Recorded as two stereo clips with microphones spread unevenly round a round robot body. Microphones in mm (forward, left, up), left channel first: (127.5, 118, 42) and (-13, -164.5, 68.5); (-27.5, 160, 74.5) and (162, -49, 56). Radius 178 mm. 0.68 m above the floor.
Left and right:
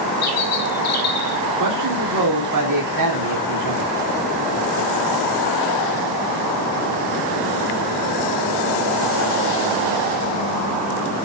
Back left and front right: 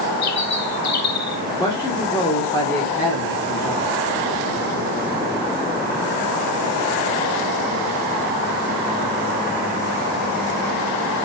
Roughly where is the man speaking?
Behind right.